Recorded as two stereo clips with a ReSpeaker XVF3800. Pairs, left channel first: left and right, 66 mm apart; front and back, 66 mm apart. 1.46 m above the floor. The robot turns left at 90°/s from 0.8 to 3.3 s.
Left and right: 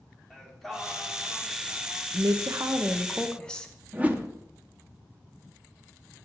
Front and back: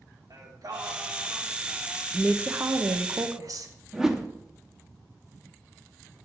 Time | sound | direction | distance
0.3 | singing | 175° left | 2.5 m
2.1 | a woman speaking | 90° right | 0.9 m
3.9 | a whoosh | 110° right | 0.9 m